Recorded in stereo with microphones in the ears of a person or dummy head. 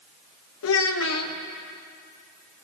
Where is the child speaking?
75° left (ahead or behind), 0.8 m.